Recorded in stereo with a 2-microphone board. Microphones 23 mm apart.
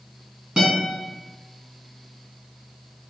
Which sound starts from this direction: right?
A guitar, at 0.6 s.